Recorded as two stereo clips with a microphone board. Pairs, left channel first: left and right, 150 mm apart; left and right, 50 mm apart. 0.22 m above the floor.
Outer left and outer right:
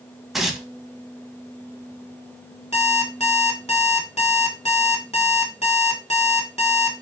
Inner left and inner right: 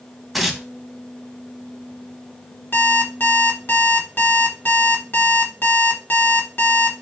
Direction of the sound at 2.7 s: 45° left (ahead or behind).